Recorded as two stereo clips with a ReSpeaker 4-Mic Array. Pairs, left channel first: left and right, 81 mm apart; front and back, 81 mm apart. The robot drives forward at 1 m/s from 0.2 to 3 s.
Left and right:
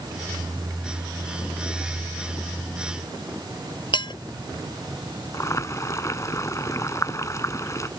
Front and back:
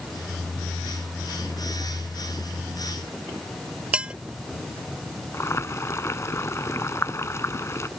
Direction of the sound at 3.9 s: 105° left.